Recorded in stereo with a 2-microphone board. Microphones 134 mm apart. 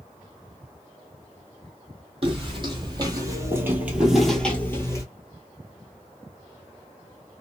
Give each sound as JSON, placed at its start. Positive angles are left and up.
{"t": 2.2, "sound": "footsteps", "side_deg": -45, "distance_m": 1.5}